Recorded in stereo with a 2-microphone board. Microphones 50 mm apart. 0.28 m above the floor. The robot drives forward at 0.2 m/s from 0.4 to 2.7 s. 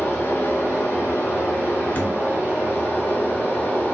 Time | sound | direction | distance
0.0 | running water | 60° left (ahead or behind) | 1.0 m
1.9 | a thud | 40° left (ahead or behind) | 0.5 m